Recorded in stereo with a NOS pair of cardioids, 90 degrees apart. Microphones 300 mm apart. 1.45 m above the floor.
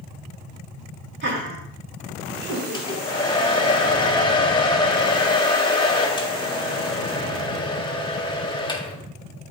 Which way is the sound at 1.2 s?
40° right.